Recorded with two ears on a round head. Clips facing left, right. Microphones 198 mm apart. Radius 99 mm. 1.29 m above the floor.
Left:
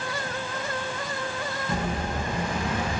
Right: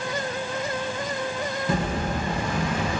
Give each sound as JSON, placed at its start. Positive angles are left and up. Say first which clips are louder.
{"t": 1.7, "sound": "an explosion", "louder": "right 3 dB", "side_deg": -55, "distance_m": 0.6}